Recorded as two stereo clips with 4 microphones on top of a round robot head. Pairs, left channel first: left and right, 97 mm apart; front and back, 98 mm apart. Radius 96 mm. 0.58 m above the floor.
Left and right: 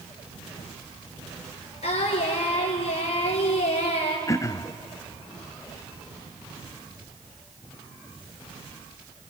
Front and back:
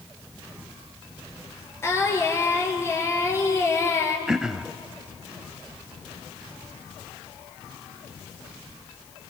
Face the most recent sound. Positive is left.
turn(degrees=100)